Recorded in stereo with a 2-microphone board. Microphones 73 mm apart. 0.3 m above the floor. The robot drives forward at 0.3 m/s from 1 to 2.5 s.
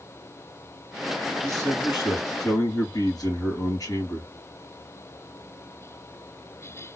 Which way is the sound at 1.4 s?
55° left (ahead or behind).